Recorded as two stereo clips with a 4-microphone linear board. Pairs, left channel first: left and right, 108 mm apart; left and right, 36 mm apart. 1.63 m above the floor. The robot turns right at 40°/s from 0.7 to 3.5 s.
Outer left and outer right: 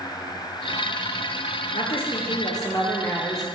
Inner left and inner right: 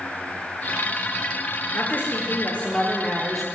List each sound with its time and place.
1.7 s a woman speaking: 110° left, 0.8 m; by 3.5 s straight behind, 0.8 m